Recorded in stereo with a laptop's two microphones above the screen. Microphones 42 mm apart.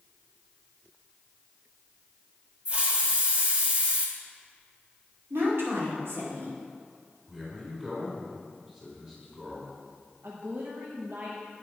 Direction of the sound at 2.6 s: 25° right (ahead or behind).